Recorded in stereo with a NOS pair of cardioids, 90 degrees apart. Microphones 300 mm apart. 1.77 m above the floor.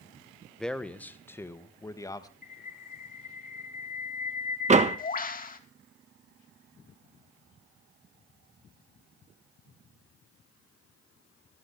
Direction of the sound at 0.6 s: Straight ahead.